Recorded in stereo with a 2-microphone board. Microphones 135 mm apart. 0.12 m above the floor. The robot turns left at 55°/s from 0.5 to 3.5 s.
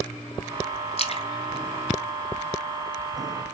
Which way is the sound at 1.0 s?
50° left (ahead or behind).